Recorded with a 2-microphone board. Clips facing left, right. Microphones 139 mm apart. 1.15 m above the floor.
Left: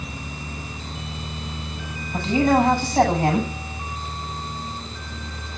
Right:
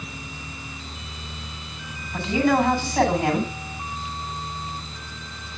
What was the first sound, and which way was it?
A man speaking, 30° left (ahead or behind).